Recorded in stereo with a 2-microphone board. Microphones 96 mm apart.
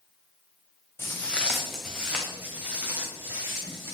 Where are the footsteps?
25° left (ahead or behind), 1.2 m; by 3.9 s 25° right (ahead or behind), 4 m.